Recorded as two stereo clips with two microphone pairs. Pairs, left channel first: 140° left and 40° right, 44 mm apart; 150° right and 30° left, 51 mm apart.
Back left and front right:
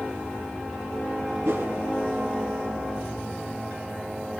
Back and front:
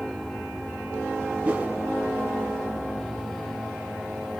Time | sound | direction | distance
1.4 | a whoosh | 35° right | 3 m